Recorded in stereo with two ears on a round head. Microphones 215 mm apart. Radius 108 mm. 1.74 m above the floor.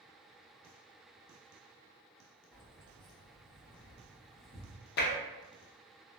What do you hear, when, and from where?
2.5 s keys jangling: 5° left (ahead or behind), 1.1 m; by 4.8 s 55° left (ahead or behind), 1.2 m
5.0 s tapping: 45° left (ahead or behind), 0.5 m